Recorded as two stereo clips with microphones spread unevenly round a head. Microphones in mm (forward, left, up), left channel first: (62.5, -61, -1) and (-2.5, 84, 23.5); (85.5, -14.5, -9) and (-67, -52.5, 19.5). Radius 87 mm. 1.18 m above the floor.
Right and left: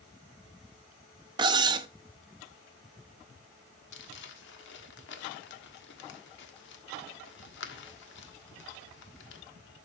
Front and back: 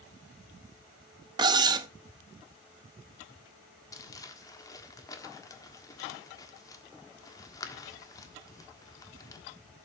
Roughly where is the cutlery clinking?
Behind left.